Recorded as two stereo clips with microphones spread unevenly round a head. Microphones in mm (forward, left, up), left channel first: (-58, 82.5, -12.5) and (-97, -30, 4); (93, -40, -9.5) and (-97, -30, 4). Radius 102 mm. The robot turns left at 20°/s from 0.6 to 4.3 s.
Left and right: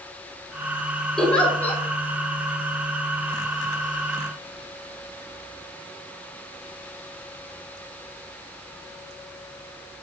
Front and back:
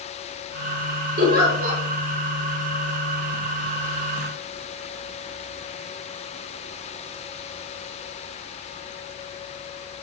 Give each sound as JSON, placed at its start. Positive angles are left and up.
{"t": 1.2, "sound": "a giggle", "azimuth_deg": 160, "distance_m": 0.7}